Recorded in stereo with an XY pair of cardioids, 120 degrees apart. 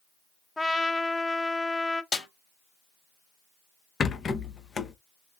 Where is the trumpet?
5° left, 0.5 m.